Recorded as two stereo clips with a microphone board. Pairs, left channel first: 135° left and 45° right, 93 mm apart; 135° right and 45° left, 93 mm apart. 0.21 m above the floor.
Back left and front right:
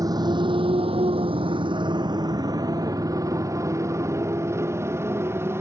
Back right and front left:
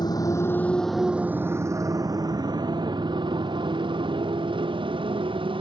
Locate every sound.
0.0 s a motorcycle: 95° right; by 5.6 s 20° left